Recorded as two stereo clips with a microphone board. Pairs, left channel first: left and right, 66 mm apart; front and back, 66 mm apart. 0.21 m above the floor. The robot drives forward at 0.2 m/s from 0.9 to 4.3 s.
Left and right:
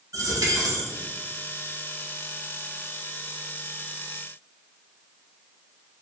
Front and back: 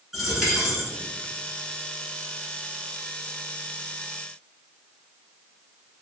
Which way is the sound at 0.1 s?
95° right.